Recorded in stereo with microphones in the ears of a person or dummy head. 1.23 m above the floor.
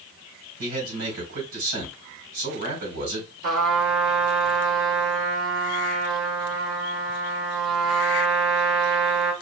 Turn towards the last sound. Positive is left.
turn(degrees=-70)  # may be behind; listen again after turning